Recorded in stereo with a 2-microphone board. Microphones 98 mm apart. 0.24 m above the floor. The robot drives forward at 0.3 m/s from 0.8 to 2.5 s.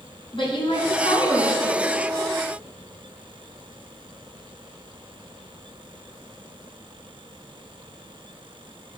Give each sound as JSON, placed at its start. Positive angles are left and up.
{"t": 0.3, "sound": "a woman speaking", "side_deg": 60, "distance_m": 2.5}